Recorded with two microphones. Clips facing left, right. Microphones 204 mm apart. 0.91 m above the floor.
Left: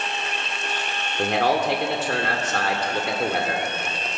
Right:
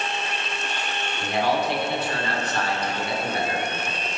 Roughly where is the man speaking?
Left.